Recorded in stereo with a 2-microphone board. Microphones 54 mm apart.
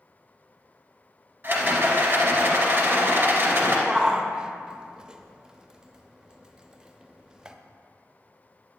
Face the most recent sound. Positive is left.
turn(degrees=-15)  # may be behind; listen again after turning